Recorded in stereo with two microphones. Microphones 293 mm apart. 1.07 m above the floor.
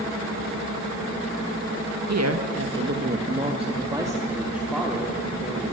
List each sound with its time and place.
2.1 s a woman speaking: 65° right (ahead or behind), 1.6 m; by 5.7 s 5° left (ahead or behind), 4 m